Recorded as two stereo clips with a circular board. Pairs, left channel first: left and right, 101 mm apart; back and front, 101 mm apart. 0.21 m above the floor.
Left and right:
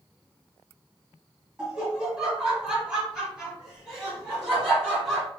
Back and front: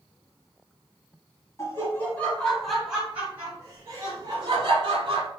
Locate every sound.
1.6 s laughter: 165° right, 1.1 m; by 5.3 s 5° right, 1.6 m